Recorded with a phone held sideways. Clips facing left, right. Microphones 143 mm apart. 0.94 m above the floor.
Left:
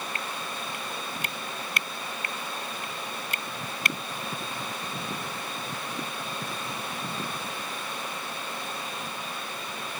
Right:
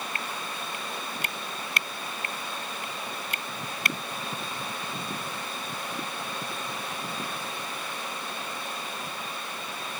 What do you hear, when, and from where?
Only background noise.